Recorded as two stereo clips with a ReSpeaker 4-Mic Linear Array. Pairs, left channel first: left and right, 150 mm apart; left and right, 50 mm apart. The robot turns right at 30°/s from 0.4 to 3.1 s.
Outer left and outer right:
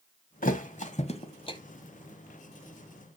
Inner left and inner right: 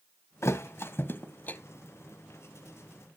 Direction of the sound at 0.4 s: 65° left (ahead or behind).